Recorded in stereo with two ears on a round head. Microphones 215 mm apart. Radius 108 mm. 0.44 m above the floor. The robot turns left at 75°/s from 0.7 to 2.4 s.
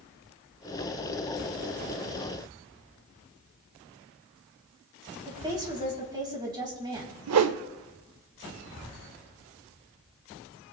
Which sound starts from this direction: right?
A whoosh, at 7.3 s.